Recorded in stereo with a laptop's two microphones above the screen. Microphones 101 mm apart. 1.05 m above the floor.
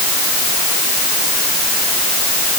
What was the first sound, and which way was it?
Only background noise.